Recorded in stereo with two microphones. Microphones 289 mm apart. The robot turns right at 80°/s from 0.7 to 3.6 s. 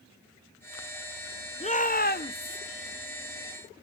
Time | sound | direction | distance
1.6 | a shout | 40° left | 0.5 m